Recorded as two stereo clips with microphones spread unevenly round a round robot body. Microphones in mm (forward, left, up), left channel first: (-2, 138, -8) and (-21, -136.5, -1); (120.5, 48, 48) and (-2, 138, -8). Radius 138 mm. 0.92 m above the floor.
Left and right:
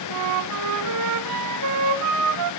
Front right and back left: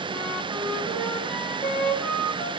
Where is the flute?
115° right, 2 m.